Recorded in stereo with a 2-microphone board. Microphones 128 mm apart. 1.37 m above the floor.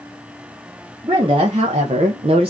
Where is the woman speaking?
40° right (ahead or behind), 0.8 m; by 2.5 s 45° right (ahead or behind), 0.5 m.